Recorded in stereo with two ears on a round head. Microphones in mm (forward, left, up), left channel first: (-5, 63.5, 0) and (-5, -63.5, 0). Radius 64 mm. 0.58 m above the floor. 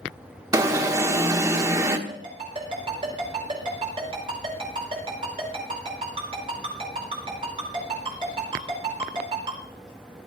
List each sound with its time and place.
0.5 s an alarm: 25° right (ahead or behind), 1.1 m
2.1 s a ringtone: 40° right (ahead or behind), 5.5 m